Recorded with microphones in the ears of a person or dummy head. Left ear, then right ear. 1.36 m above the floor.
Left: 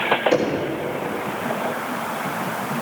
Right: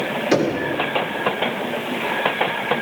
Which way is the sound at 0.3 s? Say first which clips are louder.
Right 1 dB; 30° right (ahead or behind).